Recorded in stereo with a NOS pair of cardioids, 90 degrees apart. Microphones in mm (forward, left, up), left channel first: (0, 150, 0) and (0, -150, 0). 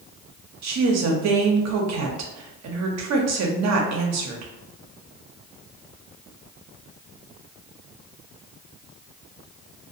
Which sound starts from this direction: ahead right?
A woman speaking, at 0.6 s.